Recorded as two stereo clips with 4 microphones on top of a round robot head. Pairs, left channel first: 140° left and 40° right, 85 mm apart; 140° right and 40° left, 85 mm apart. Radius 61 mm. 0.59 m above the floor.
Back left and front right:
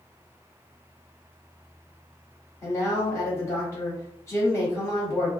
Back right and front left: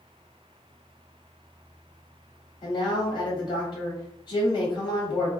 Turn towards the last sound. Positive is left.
turn(degrees=-160)